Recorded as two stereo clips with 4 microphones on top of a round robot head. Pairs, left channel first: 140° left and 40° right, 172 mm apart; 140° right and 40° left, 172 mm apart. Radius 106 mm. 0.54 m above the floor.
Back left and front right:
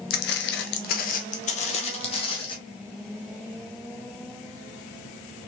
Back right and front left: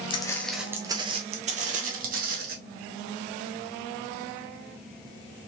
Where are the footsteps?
165° left, 0.6 m; by 2.6 s 80° left, 1.6 m.